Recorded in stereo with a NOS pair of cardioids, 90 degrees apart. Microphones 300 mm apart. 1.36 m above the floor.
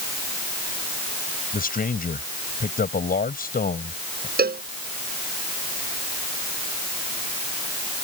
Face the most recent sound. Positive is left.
turn(degrees=-30)